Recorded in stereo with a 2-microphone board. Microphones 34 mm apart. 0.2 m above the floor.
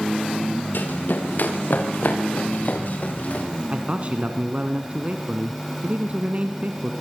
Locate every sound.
0.7 s running footsteps: 70° left (ahead or behind), 6 m; by 3.5 s 45° left (ahead or behind), 8 m
3.7 s a man speaking: 40° right (ahead or behind), 1.7 m